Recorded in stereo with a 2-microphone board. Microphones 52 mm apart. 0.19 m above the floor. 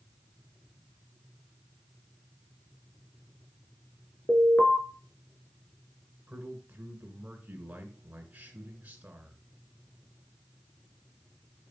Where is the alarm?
45° left (ahead or behind), 1.9 m.